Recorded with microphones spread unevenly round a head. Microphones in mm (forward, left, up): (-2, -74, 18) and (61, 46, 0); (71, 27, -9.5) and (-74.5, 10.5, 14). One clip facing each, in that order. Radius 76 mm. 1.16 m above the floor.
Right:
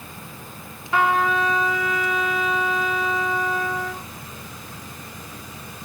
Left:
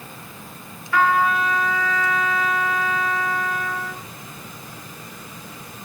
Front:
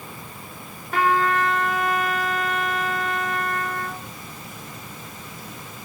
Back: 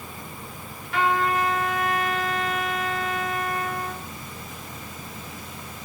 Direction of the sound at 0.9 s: 45° right.